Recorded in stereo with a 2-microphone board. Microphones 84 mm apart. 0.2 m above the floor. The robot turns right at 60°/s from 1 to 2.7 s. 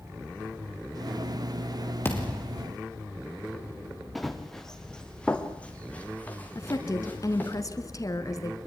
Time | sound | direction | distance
2.0 | a thud | 150° left | 3.5 m
4.2 | running footsteps | centre (ahead or behind) | 2 m
6.5 | a woman speaking | 45° left (ahead or behind) | 1.8 m